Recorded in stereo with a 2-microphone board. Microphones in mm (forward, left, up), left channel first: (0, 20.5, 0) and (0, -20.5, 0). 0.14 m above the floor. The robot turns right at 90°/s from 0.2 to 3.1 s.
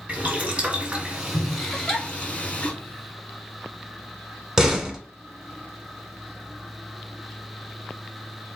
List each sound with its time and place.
0.1 s boiling: 25° right (ahead or behind), 1.8 m; by 2.7 s 25° left (ahead or behind), 1.8 m
1.7 s a giggle: 25° left (ahead or behind), 2 m; by 2.0 s 5° right (ahead or behind), 2 m
4.6 s a door slam: 10° right (ahead or behind), 0.8 m